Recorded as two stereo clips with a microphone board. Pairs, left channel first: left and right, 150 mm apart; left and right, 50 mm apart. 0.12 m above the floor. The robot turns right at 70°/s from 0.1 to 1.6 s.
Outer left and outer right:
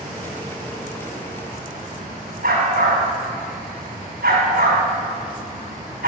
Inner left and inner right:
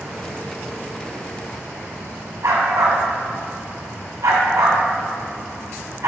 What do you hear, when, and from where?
2.4 s a dog barking: 80° right, 2 m